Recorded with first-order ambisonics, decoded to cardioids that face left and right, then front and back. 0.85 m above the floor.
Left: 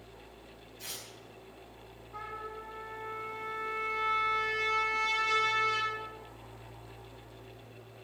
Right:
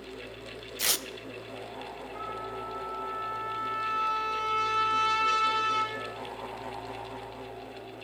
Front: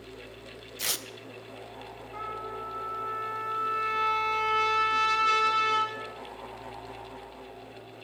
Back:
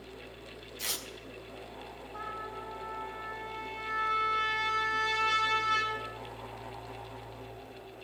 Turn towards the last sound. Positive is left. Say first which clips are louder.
# right 3 dB, front 4 dB
turn(degrees=-5)